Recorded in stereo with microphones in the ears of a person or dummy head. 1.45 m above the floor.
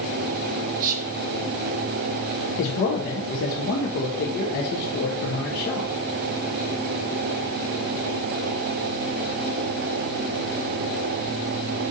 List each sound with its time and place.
0.8 s whispering: 45° right (ahead or behind), 0.6 m
2.6 s a man speaking: 50° left (ahead or behind), 0.6 m